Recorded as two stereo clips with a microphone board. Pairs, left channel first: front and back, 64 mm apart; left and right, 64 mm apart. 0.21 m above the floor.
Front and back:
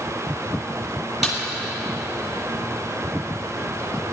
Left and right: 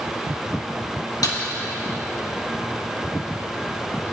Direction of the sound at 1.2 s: 95° left.